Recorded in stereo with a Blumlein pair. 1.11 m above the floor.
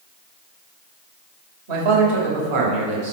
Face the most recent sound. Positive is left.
turn(degrees=-45)